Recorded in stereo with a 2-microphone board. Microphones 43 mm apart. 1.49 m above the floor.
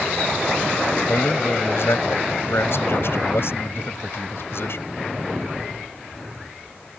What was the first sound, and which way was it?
A man speaking, 65° left (ahead or behind).